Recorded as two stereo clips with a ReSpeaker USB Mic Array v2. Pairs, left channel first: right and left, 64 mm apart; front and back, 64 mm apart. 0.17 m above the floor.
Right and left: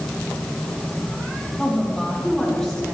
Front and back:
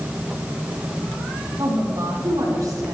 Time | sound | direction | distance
1.6 | a woman speaking | 170° right | 7.5 m